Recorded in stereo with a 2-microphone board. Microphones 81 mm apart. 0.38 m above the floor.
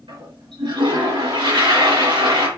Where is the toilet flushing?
75° right (ahead or behind), 4.5 m.